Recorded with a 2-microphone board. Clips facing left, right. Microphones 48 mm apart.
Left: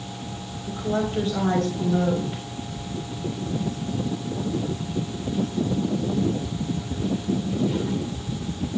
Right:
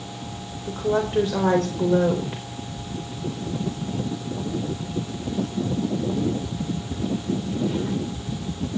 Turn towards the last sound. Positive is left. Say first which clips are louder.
# right 3 dB
turn(degrees=-55)  # may be behind; listen again after turning